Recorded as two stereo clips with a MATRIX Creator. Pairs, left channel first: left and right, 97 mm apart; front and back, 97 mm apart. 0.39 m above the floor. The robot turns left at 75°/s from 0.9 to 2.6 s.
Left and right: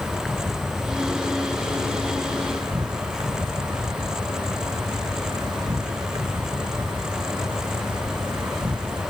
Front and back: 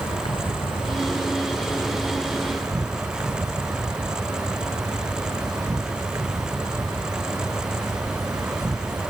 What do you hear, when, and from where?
0.0 s an insect: straight ahead; by 9.1 s 130° right